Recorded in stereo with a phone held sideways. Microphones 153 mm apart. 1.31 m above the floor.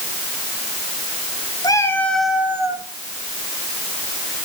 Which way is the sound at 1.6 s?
25° left (ahead or behind).